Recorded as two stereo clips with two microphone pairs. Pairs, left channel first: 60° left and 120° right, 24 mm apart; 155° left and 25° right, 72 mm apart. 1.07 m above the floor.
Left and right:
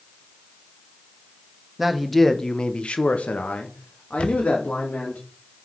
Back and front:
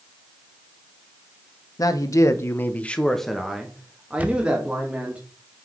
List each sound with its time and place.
1.8 s a man speaking: 165° left, 1.1 m; by 5.2 s 45° left, 2.5 m
4.2 s a camera shutter: 40° left, 0.9 m